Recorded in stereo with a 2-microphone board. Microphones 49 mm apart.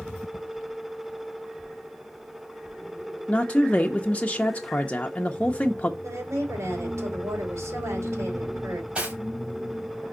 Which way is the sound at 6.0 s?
75° right (ahead or behind).